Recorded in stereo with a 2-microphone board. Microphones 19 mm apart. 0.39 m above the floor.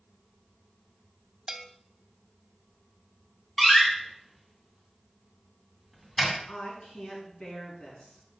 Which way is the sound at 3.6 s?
10° left (ahead or behind).